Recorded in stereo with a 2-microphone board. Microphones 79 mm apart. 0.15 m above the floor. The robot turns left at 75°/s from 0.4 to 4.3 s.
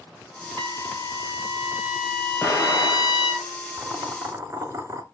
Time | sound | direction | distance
0.6 | a trumpet | 70° right | 2.5 m
2.4 | an explosion | 170° left | 5 m
3.8 | boiling | 10° right | 1.7 m